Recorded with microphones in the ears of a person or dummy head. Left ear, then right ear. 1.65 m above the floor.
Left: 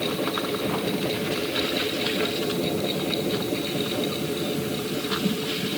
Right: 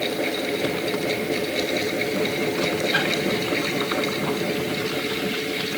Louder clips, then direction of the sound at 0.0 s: Right 2 dB; 55° right (ahead or behind).